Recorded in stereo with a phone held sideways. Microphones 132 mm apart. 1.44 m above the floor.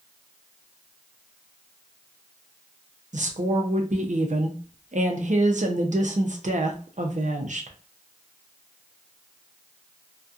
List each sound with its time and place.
3.1 s a woman speaking: 65° right (ahead or behind), 0.6 m